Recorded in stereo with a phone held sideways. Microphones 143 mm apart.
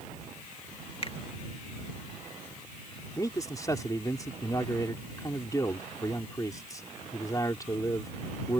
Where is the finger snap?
40° left (ahead or behind).